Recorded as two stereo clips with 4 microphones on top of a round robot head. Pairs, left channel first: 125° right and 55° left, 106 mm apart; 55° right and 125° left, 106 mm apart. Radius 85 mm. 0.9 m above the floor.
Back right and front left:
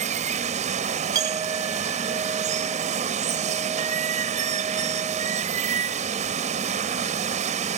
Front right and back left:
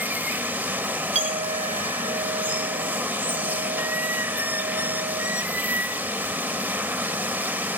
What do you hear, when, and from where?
0.0 s running water: 50° left, 0.9 m
1.1 s a clink: 110° left, 1.1 m